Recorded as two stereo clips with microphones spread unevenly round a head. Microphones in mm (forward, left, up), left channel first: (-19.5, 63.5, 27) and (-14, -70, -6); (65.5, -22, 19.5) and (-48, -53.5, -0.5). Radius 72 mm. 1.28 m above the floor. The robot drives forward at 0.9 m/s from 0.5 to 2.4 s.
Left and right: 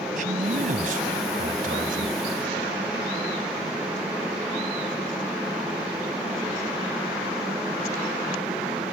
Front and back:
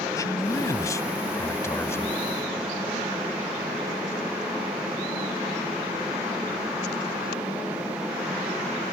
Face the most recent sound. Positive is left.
turn(degrees=-55)